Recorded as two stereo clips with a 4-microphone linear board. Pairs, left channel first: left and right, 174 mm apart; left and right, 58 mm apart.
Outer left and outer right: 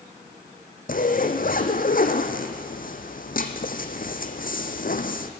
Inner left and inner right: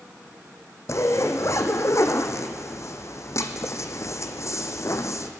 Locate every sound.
0.9 s a zipper: 55° left (ahead or behind), 1.5 m